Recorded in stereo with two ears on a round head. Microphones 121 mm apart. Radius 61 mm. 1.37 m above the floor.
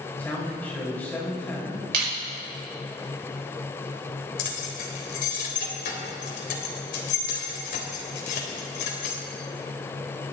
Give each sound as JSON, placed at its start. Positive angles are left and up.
{"t": 0.2, "sound": "a man speaking", "side_deg": 15, "distance_m": 7.0}
{"t": 1.9, "sound": "crushing", "side_deg": -85, "distance_m": 6.5}
{"t": 4.4, "sound": "keys jangling", "side_deg": 75, "distance_m": 3.5}